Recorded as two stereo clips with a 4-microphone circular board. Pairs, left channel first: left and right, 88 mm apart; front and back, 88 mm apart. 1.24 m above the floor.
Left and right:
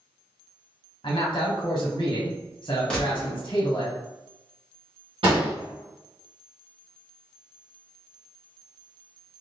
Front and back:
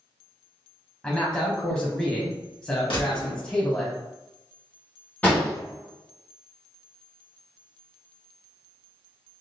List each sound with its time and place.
1.0 s a man speaking: 80° left, 0.7 m
2.9 s a gunshot: 10° left, 1.2 m
5.2 s an explosion: 70° right, 1.2 m